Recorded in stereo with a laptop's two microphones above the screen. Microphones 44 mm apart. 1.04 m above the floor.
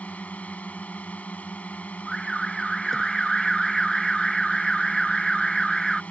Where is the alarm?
5° left (ahead or behind).